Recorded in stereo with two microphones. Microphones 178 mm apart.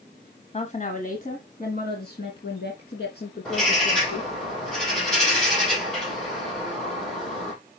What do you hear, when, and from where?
0.5 s a woman speaking: 40° left (ahead or behind), 1.3 m; by 4.4 s 70° left (ahead or behind), 3.5 m
3.5 s a bird: 5° left (ahead or behind), 4.5 m